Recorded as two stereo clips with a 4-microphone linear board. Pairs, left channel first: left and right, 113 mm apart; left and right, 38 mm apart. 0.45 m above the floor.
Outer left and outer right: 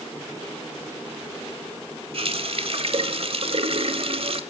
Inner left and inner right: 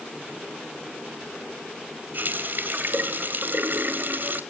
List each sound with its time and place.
2.1 s a running tap: 60° right (ahead or behind), 1.6 m